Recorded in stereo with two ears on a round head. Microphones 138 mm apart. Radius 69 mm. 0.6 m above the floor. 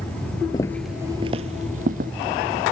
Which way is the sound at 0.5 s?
25° left (ahead or behind).